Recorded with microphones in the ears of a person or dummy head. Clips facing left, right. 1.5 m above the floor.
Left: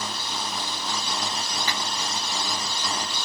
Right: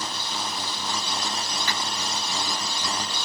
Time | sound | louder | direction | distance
1.7 | a finger snap | even | 15° left (ahead or behind) | 2.5 m